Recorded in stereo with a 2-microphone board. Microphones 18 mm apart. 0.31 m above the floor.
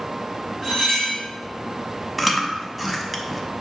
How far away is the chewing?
About 0.6 m.